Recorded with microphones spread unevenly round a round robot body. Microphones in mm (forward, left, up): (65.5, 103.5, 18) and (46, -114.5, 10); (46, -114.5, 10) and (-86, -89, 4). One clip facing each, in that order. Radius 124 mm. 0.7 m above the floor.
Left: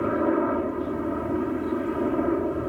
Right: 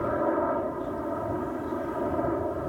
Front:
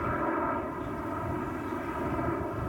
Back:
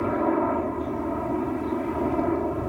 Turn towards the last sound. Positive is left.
turn(degrees=125)